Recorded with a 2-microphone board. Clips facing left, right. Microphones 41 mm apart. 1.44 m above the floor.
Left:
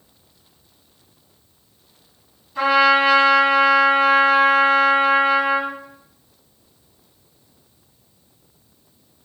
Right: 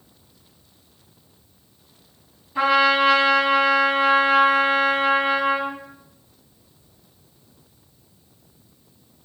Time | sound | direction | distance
2.5 | a trumpet | 25° right (ahead or behind) | 2.5 m